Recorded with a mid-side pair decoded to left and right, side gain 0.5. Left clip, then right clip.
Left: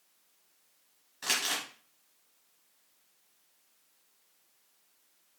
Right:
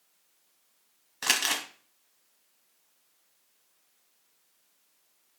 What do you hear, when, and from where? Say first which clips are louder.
1.2 s crumpling: right 4 dB; 60° right, 1.1 m